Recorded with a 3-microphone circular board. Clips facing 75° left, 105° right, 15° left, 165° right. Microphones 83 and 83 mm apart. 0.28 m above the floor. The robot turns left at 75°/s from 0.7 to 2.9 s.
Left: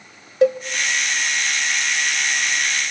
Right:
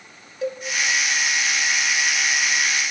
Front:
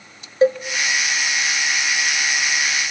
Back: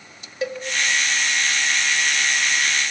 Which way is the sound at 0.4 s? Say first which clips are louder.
Left 11 dB, front 11 dB; 70° left.